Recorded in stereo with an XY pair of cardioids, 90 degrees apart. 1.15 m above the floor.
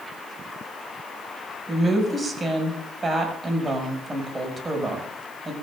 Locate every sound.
1.7 s a woman speaking: 35° right, 7 m